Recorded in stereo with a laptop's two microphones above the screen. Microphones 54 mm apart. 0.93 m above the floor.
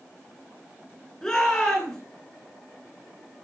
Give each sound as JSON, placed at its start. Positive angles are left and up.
{"t": 1.2, "sound": "a shout", "side_deg": 10, "distance_m": 10.0}